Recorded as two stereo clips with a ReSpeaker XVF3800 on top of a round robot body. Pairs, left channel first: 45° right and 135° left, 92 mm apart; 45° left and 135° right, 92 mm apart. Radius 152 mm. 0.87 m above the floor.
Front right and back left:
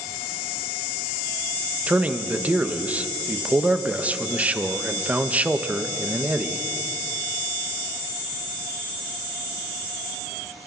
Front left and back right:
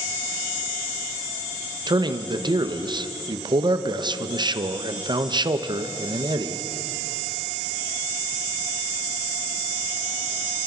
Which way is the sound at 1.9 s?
155° right.